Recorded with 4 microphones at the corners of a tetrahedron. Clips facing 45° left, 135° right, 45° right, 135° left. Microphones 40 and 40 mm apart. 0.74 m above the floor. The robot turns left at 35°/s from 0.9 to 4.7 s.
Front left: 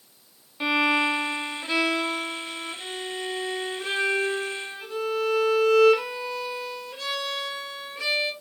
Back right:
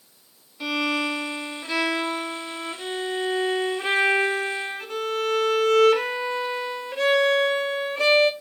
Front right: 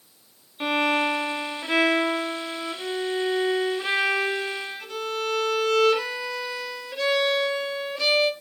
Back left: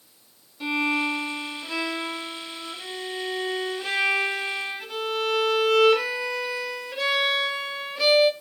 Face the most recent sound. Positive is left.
turn(degrees=-145)